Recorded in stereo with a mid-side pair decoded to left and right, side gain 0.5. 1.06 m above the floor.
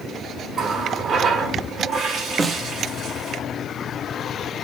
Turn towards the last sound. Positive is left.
turn(degrees=-30)